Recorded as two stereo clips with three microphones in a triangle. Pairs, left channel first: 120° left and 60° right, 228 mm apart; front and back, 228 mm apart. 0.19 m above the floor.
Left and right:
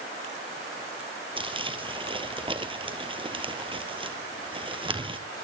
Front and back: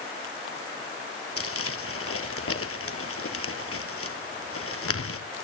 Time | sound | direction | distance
1.4 | crumpling | 5° left | 1.7 m